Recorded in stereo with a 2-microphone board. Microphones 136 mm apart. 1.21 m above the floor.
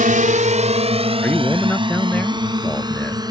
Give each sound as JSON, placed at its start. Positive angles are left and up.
{"t": 0.0, "sound": "a drone", "side_deg": -80}
{"t": 1.2, "sound": "a man speaking", "side_deg": 10}